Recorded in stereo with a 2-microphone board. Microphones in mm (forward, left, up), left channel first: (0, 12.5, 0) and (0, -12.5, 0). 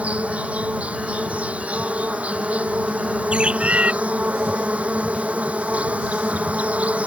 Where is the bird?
60° right (ahead or behind).